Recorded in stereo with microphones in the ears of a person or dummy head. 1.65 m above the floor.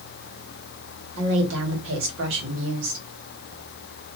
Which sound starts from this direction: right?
A woman speaking, at 1.2 s.